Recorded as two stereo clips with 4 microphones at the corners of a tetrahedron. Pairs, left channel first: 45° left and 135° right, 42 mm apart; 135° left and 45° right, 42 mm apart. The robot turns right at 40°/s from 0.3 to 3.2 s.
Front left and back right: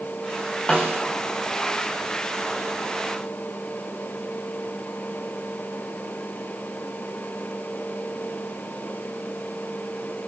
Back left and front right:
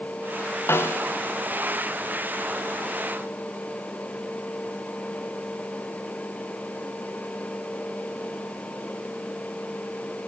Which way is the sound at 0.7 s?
115° left.